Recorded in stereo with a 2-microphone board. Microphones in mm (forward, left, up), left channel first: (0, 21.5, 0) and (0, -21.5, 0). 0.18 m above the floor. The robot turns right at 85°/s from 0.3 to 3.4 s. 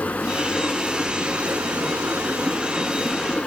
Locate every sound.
0.0 s running water: 130° left, 0.7 m; by 3.5 s 35° left, 0.7 m